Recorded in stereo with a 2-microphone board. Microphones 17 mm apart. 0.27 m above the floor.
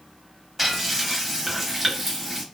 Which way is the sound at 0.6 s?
10° right (ahead or behind).